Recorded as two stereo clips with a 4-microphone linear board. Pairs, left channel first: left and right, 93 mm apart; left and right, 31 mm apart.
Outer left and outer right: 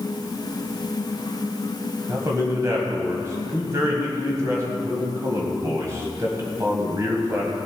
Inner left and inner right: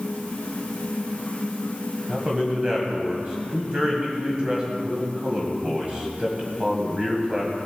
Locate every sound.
2.1 s a man speaking: 30° right (ahead or behind), 1.6 m